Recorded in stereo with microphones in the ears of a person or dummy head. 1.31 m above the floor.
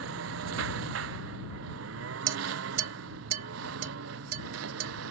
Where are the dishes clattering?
45° right (ahead or behind).